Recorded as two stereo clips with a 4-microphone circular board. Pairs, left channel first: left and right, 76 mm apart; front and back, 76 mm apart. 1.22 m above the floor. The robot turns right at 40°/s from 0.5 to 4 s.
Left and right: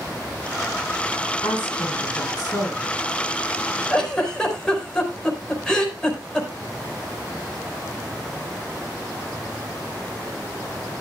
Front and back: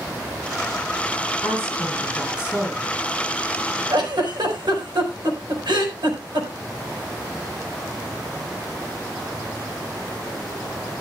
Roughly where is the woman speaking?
Left.